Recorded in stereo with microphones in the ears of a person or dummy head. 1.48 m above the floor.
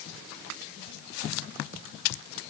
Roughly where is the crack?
I don't hear a crack.